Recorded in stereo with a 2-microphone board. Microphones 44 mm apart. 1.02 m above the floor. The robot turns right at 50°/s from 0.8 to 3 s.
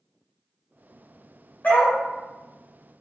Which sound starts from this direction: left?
A dog barking, at 1.6 s.